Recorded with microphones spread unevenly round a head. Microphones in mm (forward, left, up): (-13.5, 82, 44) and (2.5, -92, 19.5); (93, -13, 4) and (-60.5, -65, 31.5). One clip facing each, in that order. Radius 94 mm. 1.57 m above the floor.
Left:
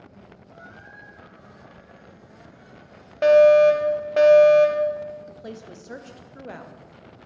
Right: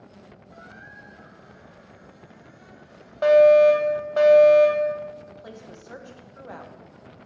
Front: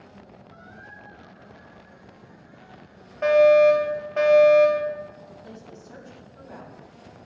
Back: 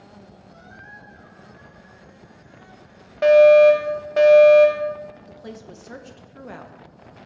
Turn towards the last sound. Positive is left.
turn(degrees=160)